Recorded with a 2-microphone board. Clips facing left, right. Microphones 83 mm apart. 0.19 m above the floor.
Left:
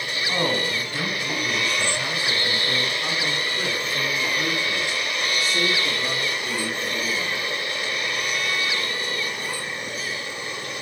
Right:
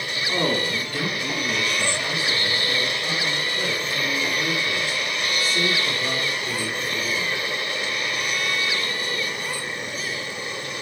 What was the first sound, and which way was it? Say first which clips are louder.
A man speaking: right 1 dB; 15° left (ahead or behind).